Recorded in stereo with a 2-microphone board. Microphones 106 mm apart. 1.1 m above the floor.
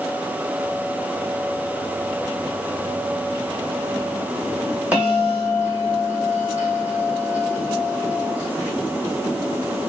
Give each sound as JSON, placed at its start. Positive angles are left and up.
{"t": 4.9, "sound": "a bell", "side_deg": -15, "distance_m": 1.4}